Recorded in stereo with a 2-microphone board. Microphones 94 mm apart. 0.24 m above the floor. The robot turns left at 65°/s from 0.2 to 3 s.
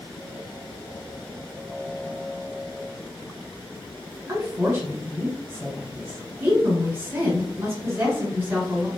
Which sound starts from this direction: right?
A woman speaking, at 4.3 s.